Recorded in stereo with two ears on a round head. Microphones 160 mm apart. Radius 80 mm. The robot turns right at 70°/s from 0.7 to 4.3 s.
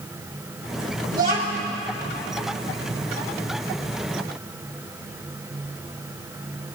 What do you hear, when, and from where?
1.1 s a child speaking: 55° right, 2.5 m; by 1.7 s 15° right, 2.5 m